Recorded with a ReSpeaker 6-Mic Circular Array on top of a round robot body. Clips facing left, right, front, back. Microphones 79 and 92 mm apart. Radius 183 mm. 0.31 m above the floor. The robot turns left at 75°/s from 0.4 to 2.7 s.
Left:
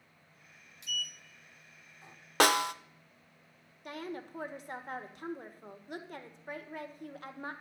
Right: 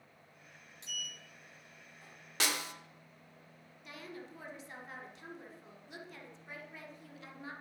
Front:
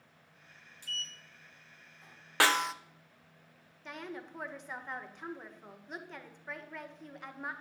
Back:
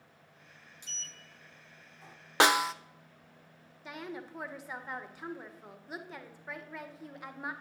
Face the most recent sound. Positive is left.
turn(degrees=100)